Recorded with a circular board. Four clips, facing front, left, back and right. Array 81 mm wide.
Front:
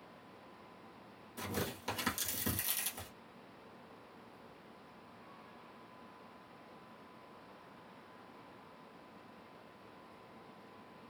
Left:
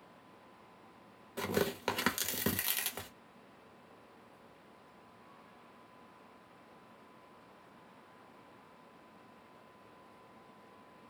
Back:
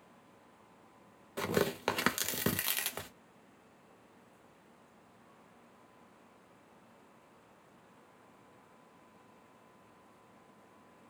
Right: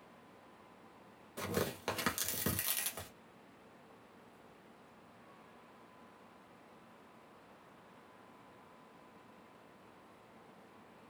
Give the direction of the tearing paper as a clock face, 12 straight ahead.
6 o'clock.